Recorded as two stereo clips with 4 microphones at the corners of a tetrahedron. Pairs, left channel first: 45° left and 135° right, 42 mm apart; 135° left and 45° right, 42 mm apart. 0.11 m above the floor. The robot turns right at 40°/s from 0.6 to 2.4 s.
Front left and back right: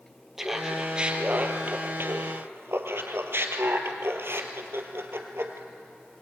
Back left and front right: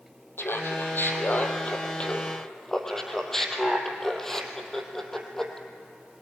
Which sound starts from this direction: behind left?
Laughter, at 0.4 s.